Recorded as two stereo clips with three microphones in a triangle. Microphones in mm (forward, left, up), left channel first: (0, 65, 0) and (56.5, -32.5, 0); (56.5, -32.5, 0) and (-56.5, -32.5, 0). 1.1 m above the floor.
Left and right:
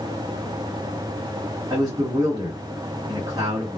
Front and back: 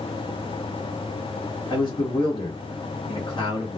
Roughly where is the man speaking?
Ahead right.